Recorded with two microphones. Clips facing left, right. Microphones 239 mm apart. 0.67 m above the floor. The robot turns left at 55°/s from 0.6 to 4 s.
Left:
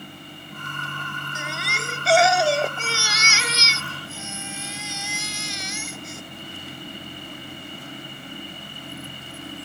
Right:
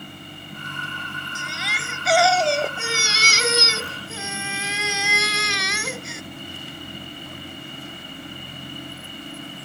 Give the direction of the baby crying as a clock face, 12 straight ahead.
10 o'clock.